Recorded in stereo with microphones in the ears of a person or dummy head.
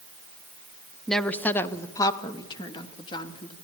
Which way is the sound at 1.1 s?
5° left (ahead or behind).